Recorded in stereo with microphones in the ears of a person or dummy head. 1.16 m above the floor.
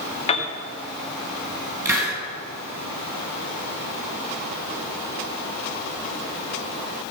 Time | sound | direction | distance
0.3 | a piano | 35° left (ahead or behind) | 1.2 m
1.9 | a hiss | 15° right (ahead or behind) | 4 m